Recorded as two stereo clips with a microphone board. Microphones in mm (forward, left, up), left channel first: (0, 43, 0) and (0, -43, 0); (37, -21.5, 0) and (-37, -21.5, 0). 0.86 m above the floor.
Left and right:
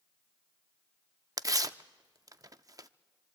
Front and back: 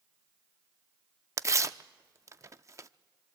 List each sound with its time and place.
1.4 s tearing paper: 135° right, 0.5 m